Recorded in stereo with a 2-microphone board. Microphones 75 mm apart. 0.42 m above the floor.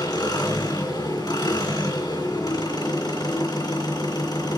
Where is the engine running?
75° left (ahead or behind), 2.5 m.